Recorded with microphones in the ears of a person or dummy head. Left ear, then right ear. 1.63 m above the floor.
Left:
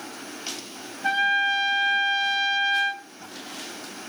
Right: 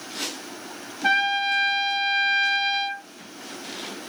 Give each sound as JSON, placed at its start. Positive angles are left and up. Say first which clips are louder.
{"t": 1.0, "sound": "a trumpet", "louder": "even", "side_deg": -40, "distance_m": 0.7}